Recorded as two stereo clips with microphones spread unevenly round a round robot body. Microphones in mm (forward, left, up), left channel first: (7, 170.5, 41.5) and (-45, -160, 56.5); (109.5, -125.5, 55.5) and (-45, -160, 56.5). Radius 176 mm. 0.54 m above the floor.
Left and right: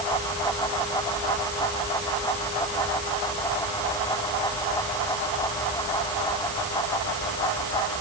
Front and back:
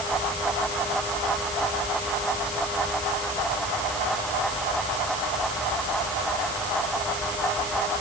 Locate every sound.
Only background noise.